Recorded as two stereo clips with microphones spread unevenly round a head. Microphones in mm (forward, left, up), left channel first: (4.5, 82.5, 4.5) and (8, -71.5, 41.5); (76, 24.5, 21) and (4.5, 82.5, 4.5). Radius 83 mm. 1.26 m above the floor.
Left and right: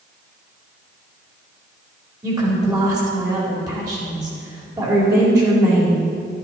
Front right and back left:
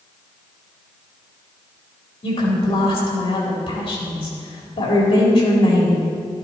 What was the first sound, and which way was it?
A woman speaking, 20° right.